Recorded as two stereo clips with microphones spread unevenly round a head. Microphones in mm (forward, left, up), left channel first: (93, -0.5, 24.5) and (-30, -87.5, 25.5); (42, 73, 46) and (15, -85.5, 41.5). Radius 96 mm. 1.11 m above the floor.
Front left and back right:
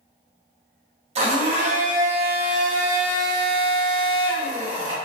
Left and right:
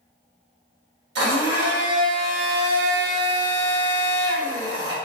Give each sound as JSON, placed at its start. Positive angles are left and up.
{"t": 1.1, "sound": "a blender", "azimuth_deg": -100, "distance_m": 1.2}